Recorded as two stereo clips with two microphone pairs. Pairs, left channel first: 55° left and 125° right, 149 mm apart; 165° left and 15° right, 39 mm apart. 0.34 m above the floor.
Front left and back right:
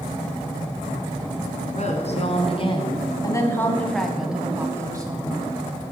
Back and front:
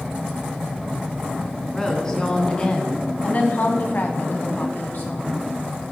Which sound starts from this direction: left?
A woman speaking, at 1.7 s.